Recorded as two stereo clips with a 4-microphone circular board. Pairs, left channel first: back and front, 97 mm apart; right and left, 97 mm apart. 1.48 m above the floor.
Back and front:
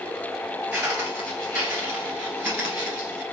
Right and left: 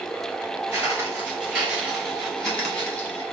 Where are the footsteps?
55° left, 1.7 m; by 3.2 s 55° right, 1.5 m.